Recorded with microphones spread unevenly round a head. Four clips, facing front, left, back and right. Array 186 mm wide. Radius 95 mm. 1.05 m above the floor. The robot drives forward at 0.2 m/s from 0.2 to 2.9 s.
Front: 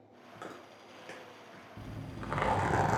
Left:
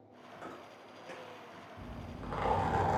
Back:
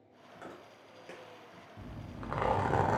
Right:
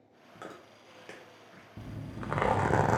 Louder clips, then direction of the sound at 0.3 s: Right 1 dB, front 2 dB; 100° right.